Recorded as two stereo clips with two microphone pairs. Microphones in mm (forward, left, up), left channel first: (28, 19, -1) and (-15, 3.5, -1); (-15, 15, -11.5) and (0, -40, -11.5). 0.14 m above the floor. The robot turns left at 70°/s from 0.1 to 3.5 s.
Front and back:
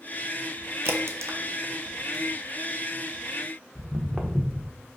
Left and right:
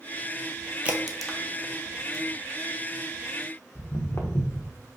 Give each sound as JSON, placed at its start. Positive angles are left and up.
{"t": 0.8, "sound": "a crack", "azimuth_deg": -140, "distance_m": 0.6}
{"t": 3.8, "sound": "footsteps", "azimuth_deg": 130, "distance_m": 0.9}